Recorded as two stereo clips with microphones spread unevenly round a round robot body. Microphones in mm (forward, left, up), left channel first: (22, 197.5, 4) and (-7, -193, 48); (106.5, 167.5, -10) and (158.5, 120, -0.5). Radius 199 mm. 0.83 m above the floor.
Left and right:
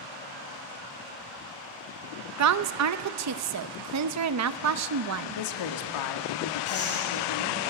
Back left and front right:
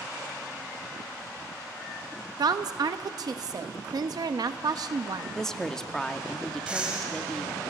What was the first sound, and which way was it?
A woman speaking, 50° right.